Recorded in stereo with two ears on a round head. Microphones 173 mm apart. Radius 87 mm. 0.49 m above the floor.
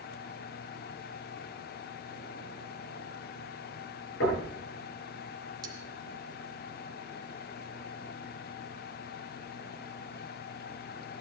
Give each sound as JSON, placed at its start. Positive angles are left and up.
{"t": 4.2, "sound": "knocking", "side_deg": 70, "distance_m": 9.0}
{"t": 5.6, "sound": "cutlery clinking", "side_deg": -20, "distance_m": 2.5}